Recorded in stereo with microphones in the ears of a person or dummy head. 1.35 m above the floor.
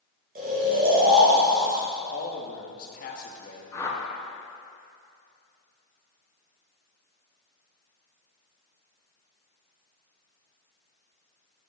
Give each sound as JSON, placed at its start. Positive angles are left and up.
{"t": 0.3, "sound": "snoring", "side_deg": -45, "distance_m": 2.0}
{"t": 2.1, "sound": "a man speaking", "side_deg": 45, "distance_m": 1.6}
{"t": 3.7, "sound": "a whoosh", "side_deg": 15, "distance_m": 1.1}